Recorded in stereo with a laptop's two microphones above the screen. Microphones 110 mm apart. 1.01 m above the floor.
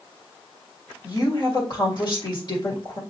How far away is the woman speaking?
About 2 m.